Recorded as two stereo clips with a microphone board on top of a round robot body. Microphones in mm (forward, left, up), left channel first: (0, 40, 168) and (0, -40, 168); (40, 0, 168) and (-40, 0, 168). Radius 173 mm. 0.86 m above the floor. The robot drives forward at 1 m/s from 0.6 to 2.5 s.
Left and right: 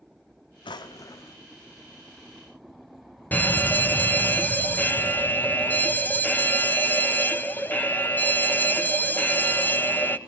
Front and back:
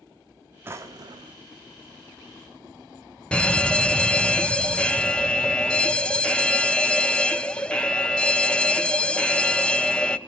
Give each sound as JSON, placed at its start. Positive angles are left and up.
{"t": 0.7, "sound": "a drawer", "azimuth_deg": 115, "distance_m": 0.7}
{"t": 3.3, "sound": "a fire alarm", "azimuth_deg": 60, "distance_m": 1.4}